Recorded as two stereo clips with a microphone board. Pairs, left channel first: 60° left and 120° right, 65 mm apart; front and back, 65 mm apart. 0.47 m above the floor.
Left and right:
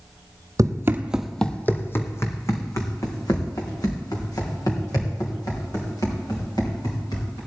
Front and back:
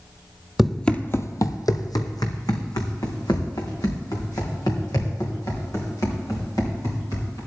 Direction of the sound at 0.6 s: 95° right.